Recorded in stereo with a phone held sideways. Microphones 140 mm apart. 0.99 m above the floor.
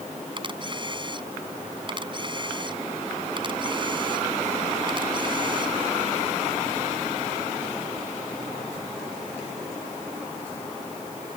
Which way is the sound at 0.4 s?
35° right (ahead or behind).